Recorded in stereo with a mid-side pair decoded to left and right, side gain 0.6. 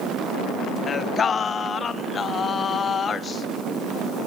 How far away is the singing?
About 0.9 m.